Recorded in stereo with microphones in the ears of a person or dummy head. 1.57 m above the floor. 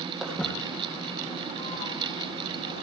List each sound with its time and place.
0.2 s footsteps: centre (ahead or behind), 3 m; by 2.8 s 55° left (ahead or behind), 4.5 m